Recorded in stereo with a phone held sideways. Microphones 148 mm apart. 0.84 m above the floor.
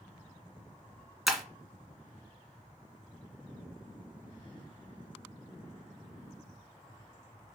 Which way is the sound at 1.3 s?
Centre (ahead or behind).